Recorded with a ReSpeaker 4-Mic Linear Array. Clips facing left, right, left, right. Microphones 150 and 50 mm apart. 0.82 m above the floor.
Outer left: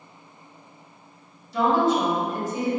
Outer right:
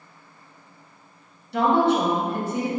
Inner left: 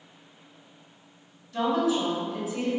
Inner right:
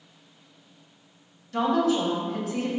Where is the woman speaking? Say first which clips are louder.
Outer right 1 dB, inner right 2 dB; 65° right (ahead or behind), 1.1 m.